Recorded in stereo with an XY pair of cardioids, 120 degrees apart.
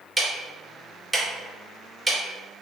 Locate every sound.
0.2 s ticking: 15° right, 0.8 m